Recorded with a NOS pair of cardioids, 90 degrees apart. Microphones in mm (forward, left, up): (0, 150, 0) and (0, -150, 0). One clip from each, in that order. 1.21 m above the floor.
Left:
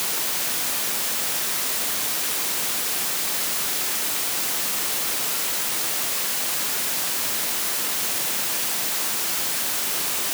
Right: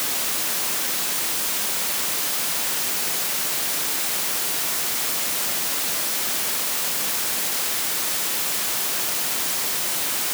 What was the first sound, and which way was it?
Only background noise.